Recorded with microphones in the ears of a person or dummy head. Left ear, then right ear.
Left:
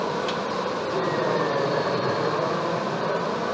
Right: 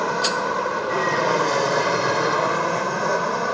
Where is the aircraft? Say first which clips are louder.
Right 4 dB; 55° right (ahead or behind); by 3.5 s 60° right (ahead or behind).